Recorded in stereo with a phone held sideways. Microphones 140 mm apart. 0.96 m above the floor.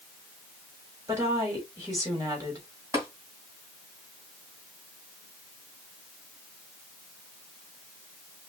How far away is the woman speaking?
About 2.5 m.